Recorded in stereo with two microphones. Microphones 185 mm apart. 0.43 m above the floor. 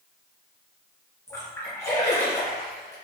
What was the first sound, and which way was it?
A splash, 15° left (ahead or behind).